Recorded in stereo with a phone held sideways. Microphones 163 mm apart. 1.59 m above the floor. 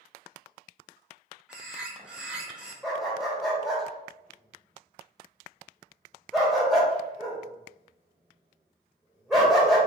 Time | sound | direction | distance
1.5 | a bird | 5° right (ahead or behind) | 1.0 m
2.8 | a dog barking | centre (ahead or behind) | 1.4 m